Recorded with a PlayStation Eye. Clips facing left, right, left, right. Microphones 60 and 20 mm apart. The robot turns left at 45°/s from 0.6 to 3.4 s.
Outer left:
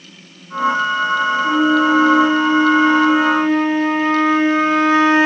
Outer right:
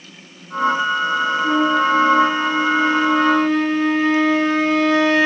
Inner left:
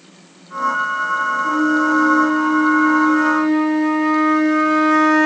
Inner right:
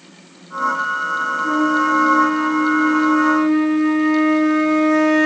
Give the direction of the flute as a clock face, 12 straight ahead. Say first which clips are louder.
Outer left 2 dB, inner right 1 dB; 4 o'clock.